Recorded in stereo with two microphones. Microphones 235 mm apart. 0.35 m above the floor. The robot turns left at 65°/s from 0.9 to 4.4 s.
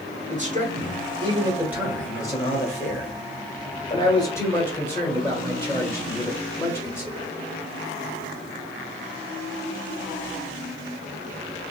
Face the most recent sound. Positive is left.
turn(degrees=20)